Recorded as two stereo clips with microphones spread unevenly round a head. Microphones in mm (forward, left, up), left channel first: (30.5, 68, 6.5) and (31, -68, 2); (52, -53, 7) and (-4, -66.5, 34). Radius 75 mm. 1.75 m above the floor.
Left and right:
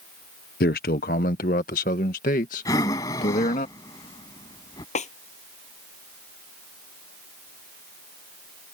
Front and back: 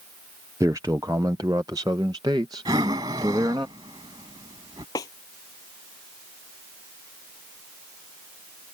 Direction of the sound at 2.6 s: 160° left.